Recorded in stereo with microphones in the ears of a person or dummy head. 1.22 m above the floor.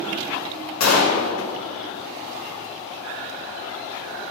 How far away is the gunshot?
About 1.5 m.